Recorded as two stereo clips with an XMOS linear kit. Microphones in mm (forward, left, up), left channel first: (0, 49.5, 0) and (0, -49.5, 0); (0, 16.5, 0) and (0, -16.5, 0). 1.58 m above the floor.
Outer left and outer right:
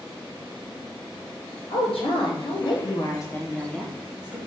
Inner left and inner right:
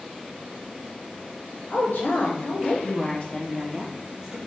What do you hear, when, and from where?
1.7 s a woman speaking: 70° left (ahead or behind), 1.1 m; by 4.4 s 15° right (ahead or behind), 0.8 m